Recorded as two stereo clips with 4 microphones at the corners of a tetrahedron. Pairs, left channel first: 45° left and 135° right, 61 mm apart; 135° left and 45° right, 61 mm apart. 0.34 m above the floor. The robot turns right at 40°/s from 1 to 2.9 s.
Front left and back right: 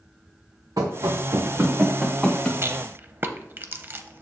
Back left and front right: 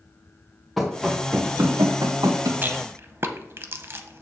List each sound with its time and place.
0.8 s running footsteps: 135° right, 1.8 m; by 2.5 s 30° right, 2 m
2.6 s a rattle: 100° right, 0.7 m; by 4.2 s 85° right, 0.7 m